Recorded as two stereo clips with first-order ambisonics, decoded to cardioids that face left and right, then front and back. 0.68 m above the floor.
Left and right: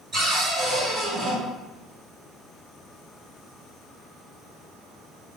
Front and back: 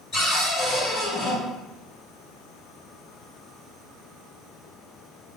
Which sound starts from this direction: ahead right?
A cupboard door, at 0.1 s.